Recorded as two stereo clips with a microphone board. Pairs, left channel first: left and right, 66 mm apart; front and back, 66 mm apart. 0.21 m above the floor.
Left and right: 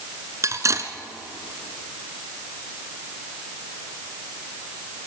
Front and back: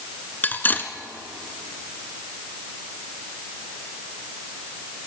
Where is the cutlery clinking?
60° right, 1.4 m.